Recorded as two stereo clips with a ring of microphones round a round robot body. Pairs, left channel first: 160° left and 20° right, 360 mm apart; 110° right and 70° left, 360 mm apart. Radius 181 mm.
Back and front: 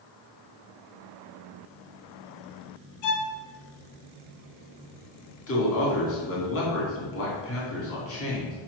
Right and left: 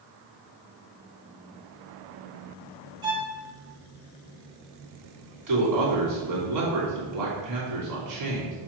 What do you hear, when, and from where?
3.0 s a violin: 145° left, 1.4 m
5.5 s a man speaking: 105° left, 3 m